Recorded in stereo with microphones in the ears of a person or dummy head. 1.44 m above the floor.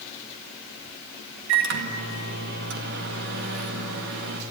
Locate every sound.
1.5 s a microwave: 70° right (ahead or behind), 2.0 m